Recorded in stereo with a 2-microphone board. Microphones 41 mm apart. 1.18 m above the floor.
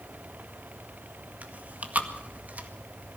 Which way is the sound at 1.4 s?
40° right (ahead or behind).